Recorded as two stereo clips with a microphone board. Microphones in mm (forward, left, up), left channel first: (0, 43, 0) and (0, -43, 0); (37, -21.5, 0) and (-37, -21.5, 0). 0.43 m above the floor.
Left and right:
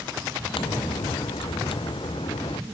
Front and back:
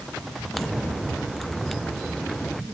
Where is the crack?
90° left.